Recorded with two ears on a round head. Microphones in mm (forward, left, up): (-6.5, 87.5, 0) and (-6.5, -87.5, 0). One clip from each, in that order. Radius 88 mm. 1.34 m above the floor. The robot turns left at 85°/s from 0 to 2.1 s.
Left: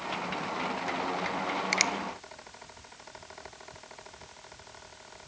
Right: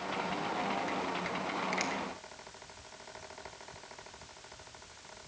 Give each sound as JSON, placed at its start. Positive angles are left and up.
{"t": 1.7, "sound": "a finger snap", "side_deg": 45, "distance_m": 0.5}